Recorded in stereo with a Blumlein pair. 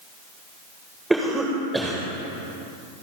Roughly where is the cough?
Ahead.